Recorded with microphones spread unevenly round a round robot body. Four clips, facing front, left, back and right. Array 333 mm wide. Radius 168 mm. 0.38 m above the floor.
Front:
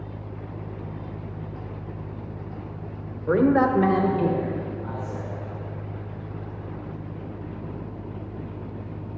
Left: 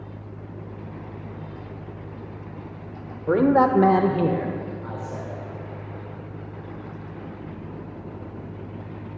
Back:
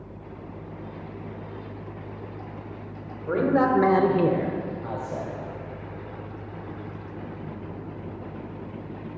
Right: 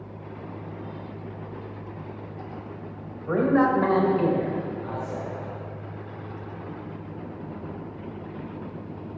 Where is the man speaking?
50° left, 1.4 m; by 5.3 s 175° right, 2.5 m.